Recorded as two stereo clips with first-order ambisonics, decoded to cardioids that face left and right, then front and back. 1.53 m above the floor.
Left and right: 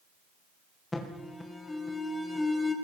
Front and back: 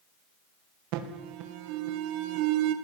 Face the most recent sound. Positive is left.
turn(degrees=170)